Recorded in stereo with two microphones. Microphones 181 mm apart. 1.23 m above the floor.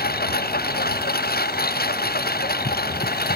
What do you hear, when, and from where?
0.0 s a lawn mower: 60° left (ahead or behind)